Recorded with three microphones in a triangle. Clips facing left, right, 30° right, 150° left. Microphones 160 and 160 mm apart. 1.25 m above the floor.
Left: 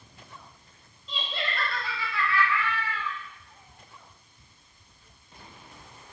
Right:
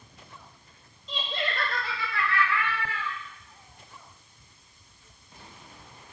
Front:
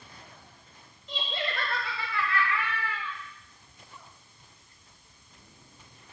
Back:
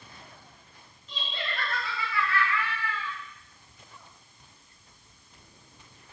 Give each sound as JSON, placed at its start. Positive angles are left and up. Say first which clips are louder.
{"t": 1.1, "sound": "laughter", "louder": "right 2 dB, front 4 dB", "azimuth_deg": -40, "distance_m": 2.5}